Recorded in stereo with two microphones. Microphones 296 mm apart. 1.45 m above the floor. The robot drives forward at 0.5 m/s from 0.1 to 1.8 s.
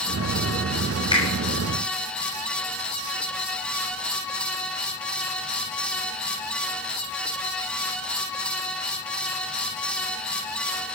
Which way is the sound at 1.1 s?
15° left (ahead or behind).